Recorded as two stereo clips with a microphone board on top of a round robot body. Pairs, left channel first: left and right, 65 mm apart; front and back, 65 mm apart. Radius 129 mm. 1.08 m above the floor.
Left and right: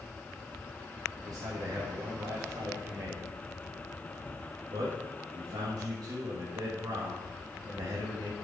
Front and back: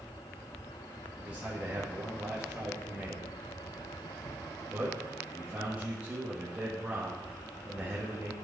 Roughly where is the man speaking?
Right.